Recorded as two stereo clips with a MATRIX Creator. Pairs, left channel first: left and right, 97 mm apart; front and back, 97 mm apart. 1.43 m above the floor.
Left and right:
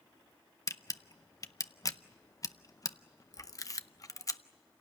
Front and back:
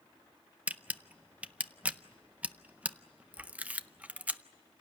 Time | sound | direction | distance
0.7 | a camera shutter | 110° left | 0.6 m